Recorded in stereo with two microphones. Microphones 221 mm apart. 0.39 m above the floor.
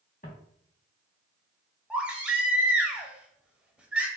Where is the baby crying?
5° right (ahead or behind), 1.0 m.